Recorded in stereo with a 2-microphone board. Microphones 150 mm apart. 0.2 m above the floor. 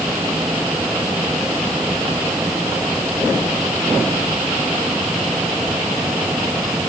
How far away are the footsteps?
I don't hear footsteps.